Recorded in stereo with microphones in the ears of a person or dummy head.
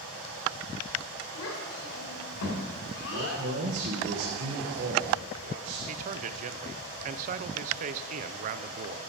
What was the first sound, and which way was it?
A child speaking, 75° left (ahead or behind).